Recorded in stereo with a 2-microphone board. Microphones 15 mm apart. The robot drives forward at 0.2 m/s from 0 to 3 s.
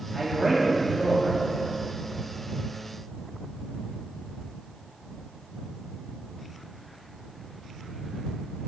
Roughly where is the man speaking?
Centre.